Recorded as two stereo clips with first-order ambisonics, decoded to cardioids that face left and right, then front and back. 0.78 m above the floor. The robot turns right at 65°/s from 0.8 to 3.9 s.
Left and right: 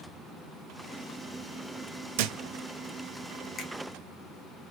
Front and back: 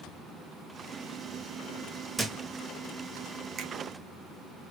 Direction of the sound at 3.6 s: 145° left.